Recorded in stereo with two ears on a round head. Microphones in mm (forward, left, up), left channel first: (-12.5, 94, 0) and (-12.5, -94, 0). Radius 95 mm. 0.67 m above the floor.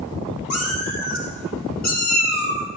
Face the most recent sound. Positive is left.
turn(degrees=15)  # may be behind; listen again after turning